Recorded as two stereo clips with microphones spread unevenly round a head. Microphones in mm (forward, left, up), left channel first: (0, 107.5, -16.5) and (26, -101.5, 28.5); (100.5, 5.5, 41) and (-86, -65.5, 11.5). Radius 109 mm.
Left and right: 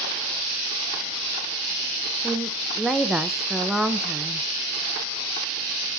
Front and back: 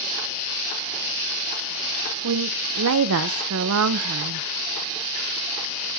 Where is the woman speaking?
170° right, 0.7 m.